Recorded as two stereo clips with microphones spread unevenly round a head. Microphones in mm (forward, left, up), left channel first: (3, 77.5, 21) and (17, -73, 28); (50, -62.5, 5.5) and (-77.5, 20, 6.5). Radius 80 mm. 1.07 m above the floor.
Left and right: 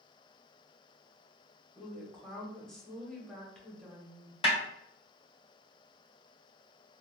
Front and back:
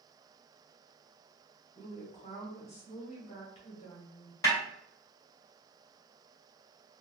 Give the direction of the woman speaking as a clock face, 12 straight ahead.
12 o'clock.